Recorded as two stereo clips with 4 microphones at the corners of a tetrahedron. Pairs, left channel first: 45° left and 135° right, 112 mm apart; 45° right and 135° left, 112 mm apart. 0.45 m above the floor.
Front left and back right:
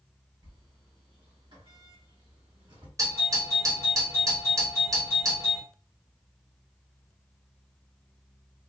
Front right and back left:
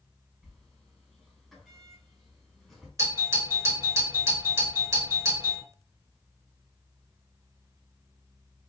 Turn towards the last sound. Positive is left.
turn(degrees=180)